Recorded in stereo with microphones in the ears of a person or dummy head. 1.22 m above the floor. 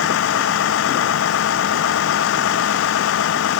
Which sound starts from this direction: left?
A vehicle, at 0.0 s.